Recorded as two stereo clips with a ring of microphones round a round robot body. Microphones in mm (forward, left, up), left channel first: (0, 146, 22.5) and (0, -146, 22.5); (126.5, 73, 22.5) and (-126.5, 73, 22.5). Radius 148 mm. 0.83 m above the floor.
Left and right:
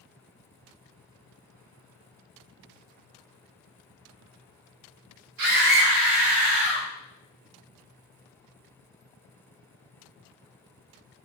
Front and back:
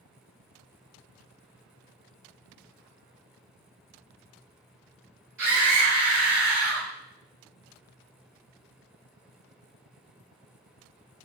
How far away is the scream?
About 4 m.